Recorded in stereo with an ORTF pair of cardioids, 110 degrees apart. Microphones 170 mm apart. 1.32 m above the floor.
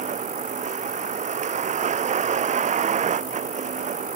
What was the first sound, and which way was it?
A vehicle, 45° right.